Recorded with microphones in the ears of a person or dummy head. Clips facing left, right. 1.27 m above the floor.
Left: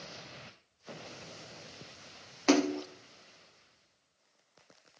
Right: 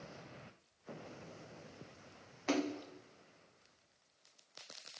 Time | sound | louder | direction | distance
2.5 | a splash | left 9 dB | 70° left (ahead or behind) | 0.6 m